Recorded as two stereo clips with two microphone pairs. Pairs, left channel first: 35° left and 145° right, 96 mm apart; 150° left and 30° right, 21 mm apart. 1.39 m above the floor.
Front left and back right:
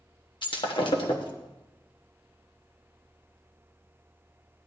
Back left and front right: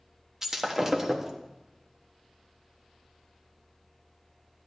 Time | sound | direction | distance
0.4 | breaking glass | 40° left | 1.1 m